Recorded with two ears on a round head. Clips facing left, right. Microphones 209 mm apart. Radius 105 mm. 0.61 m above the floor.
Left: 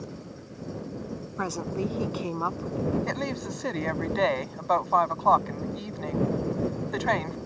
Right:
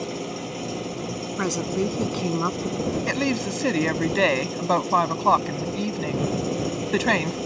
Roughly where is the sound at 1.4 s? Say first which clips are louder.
Right 5 dB; right.